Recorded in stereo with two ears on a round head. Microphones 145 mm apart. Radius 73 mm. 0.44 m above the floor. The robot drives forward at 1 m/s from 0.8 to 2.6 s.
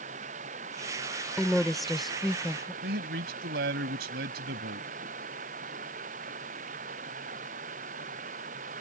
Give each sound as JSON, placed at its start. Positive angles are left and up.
{"t": 0.0, "sound": "running water", "side_deg": -45}
{"t": 1.4, "sound": "a woman speaking", "side_deg": 0}
{"t": 2.8, "sound": "a man speaking", "side_deg": -70}